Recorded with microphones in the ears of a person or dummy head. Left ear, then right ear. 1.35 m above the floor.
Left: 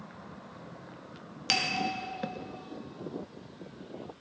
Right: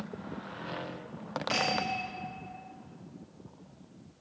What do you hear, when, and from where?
1.5 s a bell: 60° left (ahead or behind), 1.9 m